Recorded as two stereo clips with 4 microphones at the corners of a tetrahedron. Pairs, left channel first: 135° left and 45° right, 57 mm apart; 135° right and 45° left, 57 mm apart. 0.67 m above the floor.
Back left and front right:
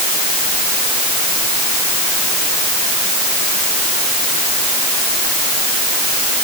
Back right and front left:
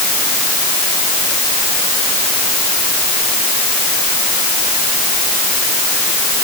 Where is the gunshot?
No gunshot in this recording.